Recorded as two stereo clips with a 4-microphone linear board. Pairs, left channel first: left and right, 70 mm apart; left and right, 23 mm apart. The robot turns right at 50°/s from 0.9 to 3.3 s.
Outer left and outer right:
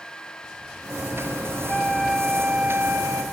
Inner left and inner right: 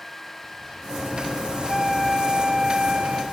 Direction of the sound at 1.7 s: 160° left.